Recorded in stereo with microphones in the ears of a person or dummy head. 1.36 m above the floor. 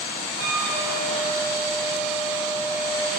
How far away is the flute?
About 2 m.